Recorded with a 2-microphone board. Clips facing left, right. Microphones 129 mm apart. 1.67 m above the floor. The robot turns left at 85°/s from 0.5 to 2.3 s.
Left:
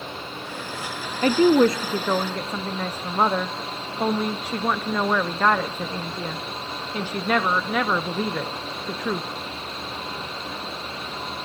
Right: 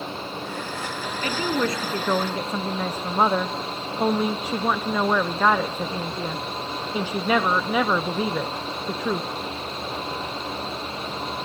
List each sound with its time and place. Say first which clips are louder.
1.2 s a woman speaking: left 9 dB; 80° left, 0.6 m; by 9.3 s 10° right, 0.6 m